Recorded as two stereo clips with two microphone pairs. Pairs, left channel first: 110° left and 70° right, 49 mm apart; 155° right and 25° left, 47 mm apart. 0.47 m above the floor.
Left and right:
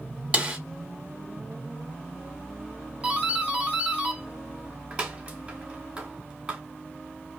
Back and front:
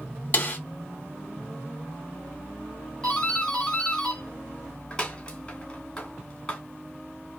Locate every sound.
0.3 s a snare drum: 125° right, 1.0 m
3.0 s a doorbell: 110° right, 1.3 m